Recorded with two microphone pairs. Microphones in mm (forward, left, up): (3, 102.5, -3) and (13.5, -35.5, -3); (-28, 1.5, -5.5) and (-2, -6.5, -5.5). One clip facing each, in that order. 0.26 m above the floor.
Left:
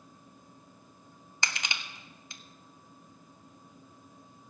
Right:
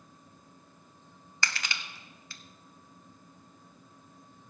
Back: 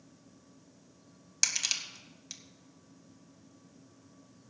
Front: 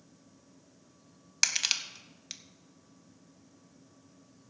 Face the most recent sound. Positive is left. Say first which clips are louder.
# even, front 3 dB
turn(degrees=35)